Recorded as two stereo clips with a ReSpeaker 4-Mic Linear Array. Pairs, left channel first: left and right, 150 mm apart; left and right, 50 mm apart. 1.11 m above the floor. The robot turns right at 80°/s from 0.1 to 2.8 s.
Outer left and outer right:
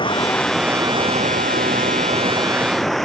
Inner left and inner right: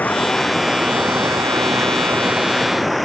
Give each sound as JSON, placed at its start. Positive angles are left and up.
{"t": 0.0, "sound": "running water", "azimuth_deg": 145}